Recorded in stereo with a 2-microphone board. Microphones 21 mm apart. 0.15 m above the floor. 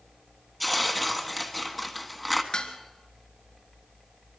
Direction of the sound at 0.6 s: Centre (ahead or behind).